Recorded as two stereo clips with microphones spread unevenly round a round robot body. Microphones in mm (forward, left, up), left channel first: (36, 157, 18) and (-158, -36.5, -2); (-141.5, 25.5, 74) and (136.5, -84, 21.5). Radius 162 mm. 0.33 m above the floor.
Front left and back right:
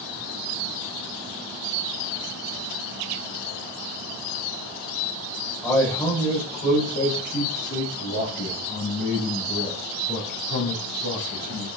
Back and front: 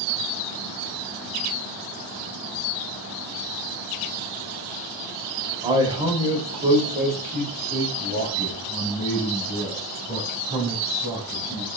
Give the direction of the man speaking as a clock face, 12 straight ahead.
2 o'clock.